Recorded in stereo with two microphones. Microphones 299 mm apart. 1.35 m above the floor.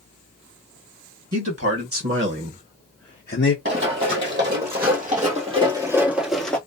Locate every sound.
1.3 s a man speaking: 60° right (ahead or behind), 1.6 m; by 3.5 s 50° left (ahead or behind), 0.7 m
3.6 s running footsteps: 45° right (ahead or behind), 2.0 m; by 6.6 s 5° left (ahead or behind), 1.3 m